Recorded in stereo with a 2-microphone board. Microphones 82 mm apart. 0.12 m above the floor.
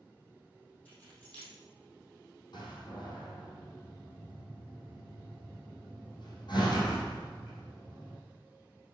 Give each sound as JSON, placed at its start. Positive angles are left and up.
{"t": 0.8, "sound": "keys jangling", "side_deg": 20, "distance_m": 3.5}
{"t": 2.5, "sound": "a door slam", "side_deg": 60, "distance_m": 3.5}